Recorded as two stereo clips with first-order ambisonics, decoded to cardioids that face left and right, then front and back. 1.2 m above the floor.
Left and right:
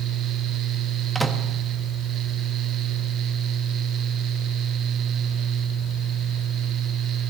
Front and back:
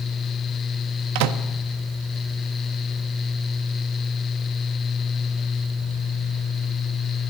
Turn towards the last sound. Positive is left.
turn(degrees=-175)